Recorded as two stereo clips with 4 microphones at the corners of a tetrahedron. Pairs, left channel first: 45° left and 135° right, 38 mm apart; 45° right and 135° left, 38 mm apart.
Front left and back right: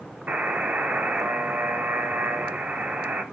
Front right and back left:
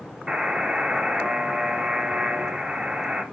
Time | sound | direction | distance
0.3 | a buzzer | 155° right | 1.9 m